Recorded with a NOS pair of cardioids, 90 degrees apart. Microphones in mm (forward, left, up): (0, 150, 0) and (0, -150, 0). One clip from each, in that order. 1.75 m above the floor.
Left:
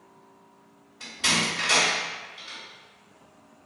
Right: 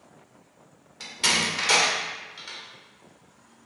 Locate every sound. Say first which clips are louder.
1.0 s a door slam: right 1 dB; 60° right, 1.8 m